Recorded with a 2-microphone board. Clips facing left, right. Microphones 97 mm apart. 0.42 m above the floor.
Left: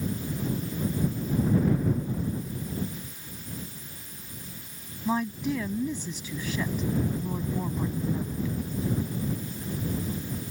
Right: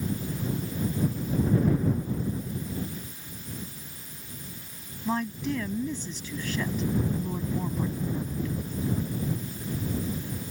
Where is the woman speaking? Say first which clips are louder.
Left 1 dB; 5° left (ahead or behind).